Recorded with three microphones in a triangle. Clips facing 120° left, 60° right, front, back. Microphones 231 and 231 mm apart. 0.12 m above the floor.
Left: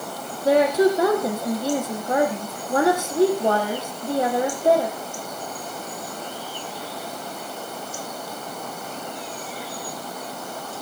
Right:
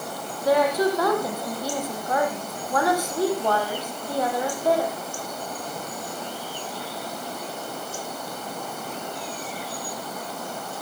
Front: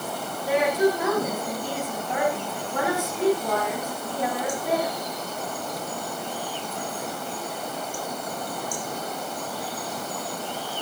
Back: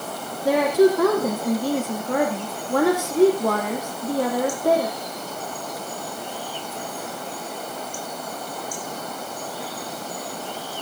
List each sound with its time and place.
0.5 s a woman speaking: 175° right, 5 m